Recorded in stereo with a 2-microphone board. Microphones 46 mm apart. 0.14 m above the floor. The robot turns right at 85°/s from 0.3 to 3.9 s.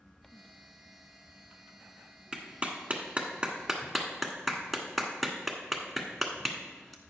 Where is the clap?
20° right (ahead or behind), 1.3 m; by 7.0 s centre (ahead or behind), 1.3 m.